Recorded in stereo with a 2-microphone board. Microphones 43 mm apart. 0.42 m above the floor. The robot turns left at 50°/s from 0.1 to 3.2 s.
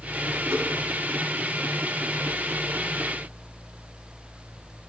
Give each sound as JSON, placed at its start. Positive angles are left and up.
{"t": 0.5, "sound": "a whoosh", "side_deg": -85, "distance_m": 1.2}